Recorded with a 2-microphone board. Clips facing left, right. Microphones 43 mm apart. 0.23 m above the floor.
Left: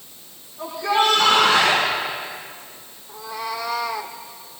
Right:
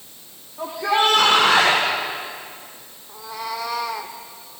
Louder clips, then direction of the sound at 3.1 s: Left 1 dB; centre (ahead or behind).